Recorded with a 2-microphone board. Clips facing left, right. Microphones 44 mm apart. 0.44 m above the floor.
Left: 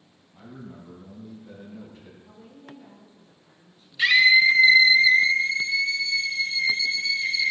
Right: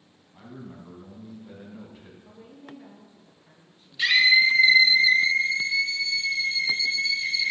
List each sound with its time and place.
0.3 s a man speaking: 15° right (ahead or behind), 4 m
2.2 s a woman speaking: 40° right (ahead or behind), 6 m
4.0 s a scream: 20° left (ahead or behind), 2.5 m